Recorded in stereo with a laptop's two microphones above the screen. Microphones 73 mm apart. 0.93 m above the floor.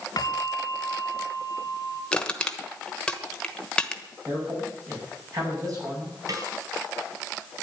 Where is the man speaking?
50° right (ahead or behind), 7 m.